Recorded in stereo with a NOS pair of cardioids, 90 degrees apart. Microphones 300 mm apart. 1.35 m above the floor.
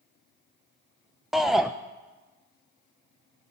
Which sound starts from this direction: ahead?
A shout, at 1.3 s.